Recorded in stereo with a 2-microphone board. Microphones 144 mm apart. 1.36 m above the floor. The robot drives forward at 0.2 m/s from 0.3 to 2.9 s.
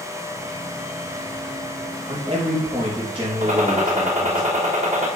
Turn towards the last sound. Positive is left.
turn(degrees=-60)  # may be behind; listen again after turning